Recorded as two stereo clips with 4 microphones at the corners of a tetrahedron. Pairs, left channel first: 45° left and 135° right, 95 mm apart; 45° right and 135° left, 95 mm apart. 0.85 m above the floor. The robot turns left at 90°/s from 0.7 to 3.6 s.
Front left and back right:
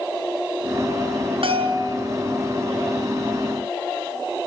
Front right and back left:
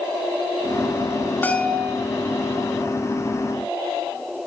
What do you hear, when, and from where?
1.4 s a bell: 115° right, 5.5 m; by 2.0 s 165° right, 5.5 m